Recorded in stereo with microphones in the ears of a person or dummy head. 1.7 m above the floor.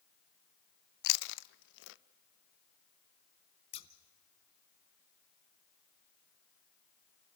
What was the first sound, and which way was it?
Chewing, 65° left (ahead or behind).